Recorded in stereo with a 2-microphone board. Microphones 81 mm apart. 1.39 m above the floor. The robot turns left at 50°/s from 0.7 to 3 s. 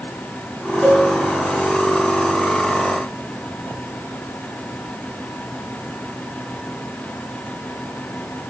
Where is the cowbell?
5° left (ahead or behind), 2 m; by 1.1 s 10° right (ahead or behind), 2 m.